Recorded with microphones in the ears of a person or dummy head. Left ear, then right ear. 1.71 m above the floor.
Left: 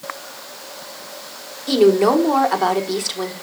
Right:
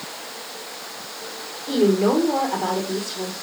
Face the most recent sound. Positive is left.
turn(degrees=60)  # may be behind; listen again after turning